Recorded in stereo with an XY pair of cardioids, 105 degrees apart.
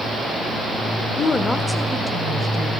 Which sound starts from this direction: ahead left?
A woman speaking, at 1.2 s.